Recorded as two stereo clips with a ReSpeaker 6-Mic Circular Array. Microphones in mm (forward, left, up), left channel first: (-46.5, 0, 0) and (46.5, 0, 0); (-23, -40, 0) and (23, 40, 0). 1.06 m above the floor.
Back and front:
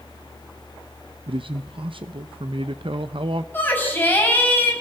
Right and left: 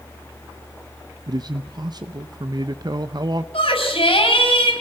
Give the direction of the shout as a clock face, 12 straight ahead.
4 o'clock.